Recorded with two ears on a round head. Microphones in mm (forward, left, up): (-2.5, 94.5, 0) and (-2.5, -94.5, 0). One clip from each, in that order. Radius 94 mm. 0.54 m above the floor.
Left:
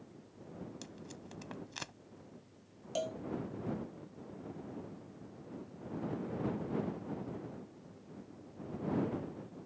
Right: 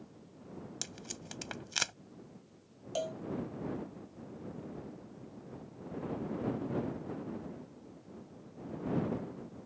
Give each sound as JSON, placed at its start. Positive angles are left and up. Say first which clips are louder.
{"t": 0.8, "sound": "tape being pulled", "louder": "right 6 dB", "side_deg": -60}
{"t": 3.0, "sound": "a cowbell", "louder": "right 1 dB", "side_deg": 0}